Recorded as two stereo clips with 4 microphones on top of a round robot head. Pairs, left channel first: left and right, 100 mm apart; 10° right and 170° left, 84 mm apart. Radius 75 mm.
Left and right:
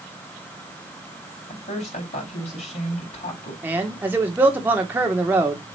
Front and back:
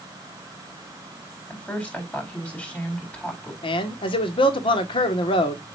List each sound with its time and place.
1.5 s a woman speaking: 70° left, 5 m
3.6 s a man speaking: 15° right, 1.8 m